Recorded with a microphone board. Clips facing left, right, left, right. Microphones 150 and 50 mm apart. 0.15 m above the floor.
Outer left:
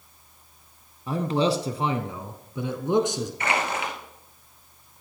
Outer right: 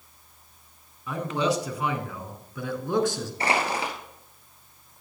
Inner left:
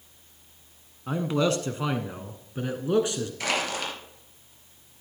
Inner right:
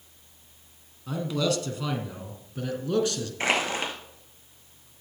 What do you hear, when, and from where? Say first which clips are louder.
1.1 s a man speaking: outer left 3 dB, inner left 2 dB; 35° left (ahead or behind), 1.2 m; by 3.3 s 20° left (ahead or behind), 1.5 m
3.4 s crushing: outer right 2 dB, inner right 4 dB; 35° right (ahead or behind), 3 m